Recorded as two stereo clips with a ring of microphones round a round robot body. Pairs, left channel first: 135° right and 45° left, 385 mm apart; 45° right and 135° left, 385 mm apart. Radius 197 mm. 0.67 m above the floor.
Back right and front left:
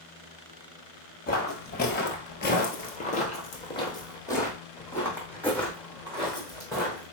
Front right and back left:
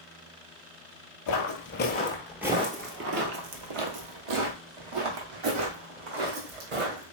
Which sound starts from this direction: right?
Footsteps, at 1.3 s.